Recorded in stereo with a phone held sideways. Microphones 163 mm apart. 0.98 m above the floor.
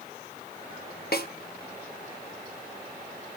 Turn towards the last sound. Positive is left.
turn(degrees=70)  # may be behind; listen again after turning